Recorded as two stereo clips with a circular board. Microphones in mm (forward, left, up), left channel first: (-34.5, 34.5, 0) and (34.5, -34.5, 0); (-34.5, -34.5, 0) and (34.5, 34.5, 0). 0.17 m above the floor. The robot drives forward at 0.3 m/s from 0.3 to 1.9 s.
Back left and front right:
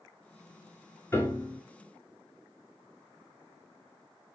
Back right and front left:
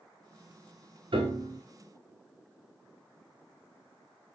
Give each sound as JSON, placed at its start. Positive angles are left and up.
{"t": 1.1, "sound": "a piano", "azimuth_deg": 70, "distance_m": 1.0}